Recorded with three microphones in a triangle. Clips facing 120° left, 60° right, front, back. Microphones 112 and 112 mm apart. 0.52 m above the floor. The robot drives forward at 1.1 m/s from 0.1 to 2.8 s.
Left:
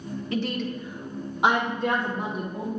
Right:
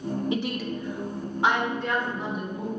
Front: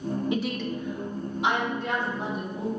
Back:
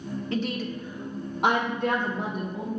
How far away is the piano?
No piano in this recording.